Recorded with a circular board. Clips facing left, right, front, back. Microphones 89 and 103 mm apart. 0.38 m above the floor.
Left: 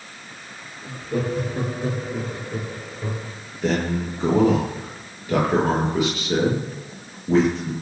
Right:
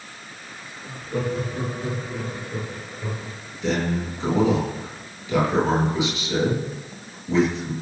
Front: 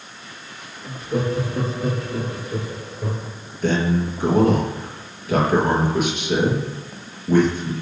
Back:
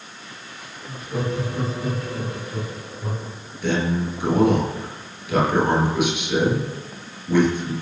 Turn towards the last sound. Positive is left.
turn(degrees=50)